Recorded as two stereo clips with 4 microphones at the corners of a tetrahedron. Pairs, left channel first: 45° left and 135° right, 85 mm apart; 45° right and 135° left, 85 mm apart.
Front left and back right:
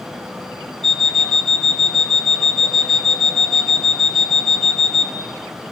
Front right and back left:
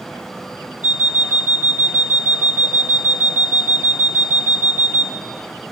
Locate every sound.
0.8 s an alarm clock: 155° right, 1.6 m